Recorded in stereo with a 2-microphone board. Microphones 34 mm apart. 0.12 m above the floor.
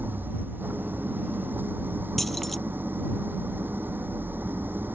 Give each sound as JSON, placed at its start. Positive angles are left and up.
{"t": 0.0, "sound": "an engine running", "side_deg": -70}
{"t": 2.2, "sound": "keys jangling", "side_deg": 5}